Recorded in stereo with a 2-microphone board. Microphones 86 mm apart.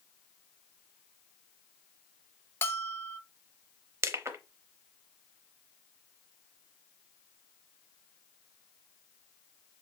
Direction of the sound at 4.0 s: 35° right (ahead or behind).